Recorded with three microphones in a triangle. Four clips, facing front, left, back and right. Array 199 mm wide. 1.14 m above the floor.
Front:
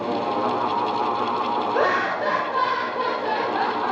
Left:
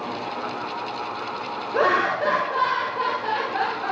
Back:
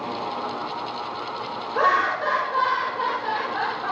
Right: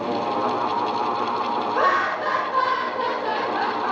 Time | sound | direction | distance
1.7 | laughter | 55° left | 0.7 m